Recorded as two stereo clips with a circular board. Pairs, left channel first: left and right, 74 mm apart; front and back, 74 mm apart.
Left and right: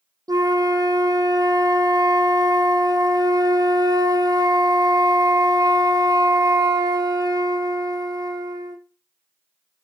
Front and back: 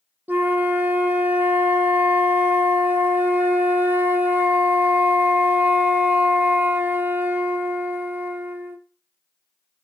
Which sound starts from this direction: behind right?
A flute, at 0.3 s.